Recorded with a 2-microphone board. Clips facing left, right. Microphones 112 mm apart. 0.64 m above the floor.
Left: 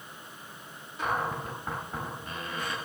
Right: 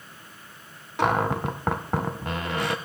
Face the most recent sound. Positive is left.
turn(degrees=-80)